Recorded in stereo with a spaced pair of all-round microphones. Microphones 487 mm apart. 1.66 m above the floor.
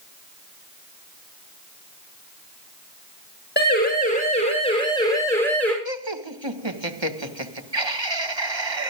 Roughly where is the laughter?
Right.